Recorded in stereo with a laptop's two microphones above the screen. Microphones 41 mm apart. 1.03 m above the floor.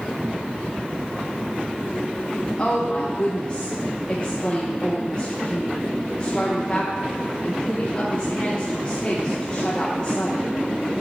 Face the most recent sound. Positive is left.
turn(degrees=30)  # may be behind; listen again after turning